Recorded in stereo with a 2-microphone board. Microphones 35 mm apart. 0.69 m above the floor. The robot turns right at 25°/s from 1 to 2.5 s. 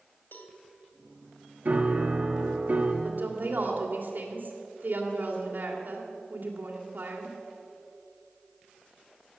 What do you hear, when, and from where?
0.3 s a cowbell: 70° left (ahead or behind), 2.5 m
1.6 s a piano: 50° right (ahead or behind), 1.6 m
3.0 s a woman speaking: 60° right (ahead or behind), 2.5 m